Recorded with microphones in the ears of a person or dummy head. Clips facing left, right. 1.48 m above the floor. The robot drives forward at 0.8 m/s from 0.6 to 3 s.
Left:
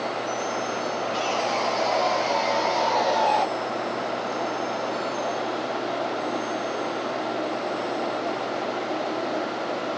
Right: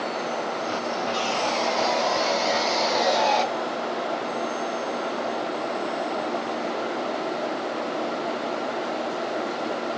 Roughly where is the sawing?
Centre.